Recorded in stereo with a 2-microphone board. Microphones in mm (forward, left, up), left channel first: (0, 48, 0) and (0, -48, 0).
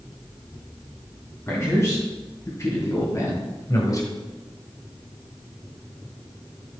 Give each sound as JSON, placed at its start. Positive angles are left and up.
{"t": 1.5, "sound": "a man speaking", "side_deg": 30, "distance_m": 3.0}